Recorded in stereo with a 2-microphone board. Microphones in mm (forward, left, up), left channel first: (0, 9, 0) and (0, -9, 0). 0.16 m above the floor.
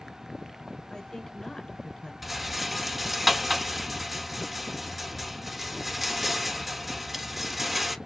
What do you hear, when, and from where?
0.9 s a woman speaking: 45° left (ahead or behind), 2 m
2.2 s a rattle: 5° right (ahead or behind), 0.8 m